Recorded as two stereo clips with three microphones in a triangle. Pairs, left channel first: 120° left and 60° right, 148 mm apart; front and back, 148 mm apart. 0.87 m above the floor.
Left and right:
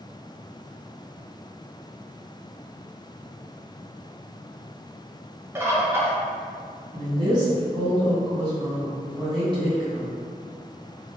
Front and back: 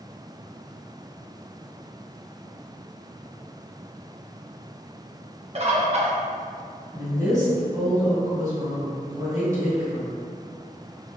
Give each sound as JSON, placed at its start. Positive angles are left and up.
{"t": 5.5, "sound": "a bird", "azimuth_deg": -130, "distance_m": 0.5}
{"t": 6.9, "sound": "a woman speaking", "azimuth_deg": -115, "distance_m": 1.3}